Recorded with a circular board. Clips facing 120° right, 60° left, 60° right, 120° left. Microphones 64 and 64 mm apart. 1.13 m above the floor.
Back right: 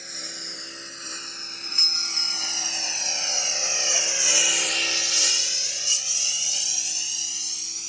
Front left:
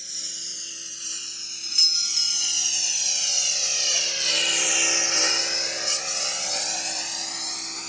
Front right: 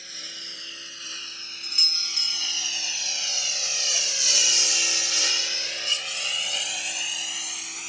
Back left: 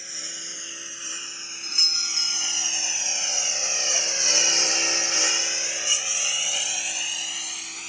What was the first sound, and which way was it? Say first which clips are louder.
A lawn mower: back right 6 dB, back left 2 dB; 165° right.